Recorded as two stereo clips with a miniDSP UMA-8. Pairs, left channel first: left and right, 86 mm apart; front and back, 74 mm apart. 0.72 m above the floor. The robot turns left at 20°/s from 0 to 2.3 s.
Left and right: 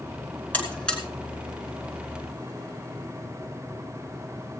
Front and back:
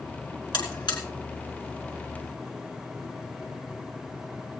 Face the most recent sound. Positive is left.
turn(degrees=-15)